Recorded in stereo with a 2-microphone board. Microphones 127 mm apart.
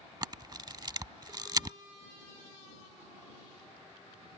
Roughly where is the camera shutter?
Right.